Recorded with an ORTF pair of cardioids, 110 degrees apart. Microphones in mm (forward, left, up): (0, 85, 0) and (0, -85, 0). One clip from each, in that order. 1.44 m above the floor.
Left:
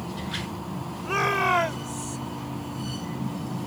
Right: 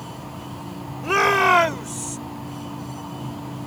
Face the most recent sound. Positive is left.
turn(degrees=-35)